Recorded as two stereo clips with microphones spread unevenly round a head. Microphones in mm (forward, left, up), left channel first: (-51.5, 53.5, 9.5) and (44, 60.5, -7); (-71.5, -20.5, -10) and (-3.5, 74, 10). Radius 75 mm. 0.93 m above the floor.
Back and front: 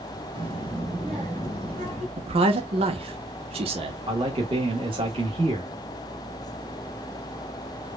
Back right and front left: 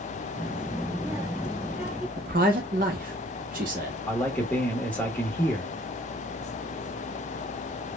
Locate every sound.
0.3 s a child speaking: 20° left, 0.8 m; by 2.1 s 35° right, 2.5 m
2.2 s a man speaking: 15° left, 1.0 m
4.1 s a man speaking: 45° right, 1.1 m